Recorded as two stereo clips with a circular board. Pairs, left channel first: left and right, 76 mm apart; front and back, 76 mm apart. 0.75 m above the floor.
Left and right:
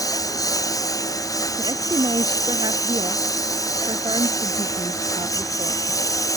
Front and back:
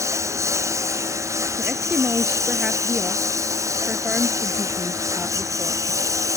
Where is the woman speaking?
105° right.